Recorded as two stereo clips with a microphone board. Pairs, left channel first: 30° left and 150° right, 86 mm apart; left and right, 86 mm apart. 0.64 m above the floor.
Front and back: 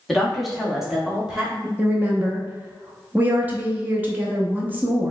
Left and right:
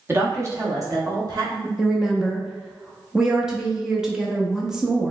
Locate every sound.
0.1 s a woman speaking: 55° right, 1.0 m; by 1.7 s 70° right, 1.6 m
1.8 s a woman speaking: 165° right, 0.7 m